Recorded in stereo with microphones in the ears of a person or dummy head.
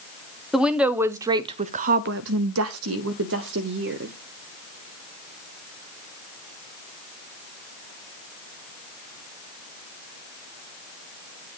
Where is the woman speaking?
Centre (ahead or behind), 1.0 m; by 4.1 s 55° right (ahead or behind), 1.3 m.